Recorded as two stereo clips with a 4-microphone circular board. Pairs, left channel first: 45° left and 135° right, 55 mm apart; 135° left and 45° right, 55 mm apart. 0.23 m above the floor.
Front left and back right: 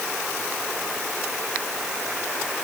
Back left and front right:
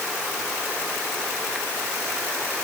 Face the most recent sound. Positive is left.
No sound to turn to.